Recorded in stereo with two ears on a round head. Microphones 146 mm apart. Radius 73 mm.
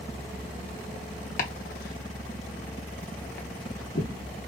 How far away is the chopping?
About 0.8 m.